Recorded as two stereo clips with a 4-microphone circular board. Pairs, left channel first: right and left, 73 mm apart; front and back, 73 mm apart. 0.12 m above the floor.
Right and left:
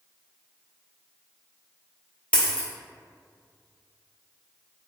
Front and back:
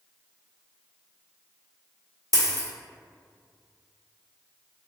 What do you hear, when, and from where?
2.3 s a dropped coin: 20° right, 1.4 m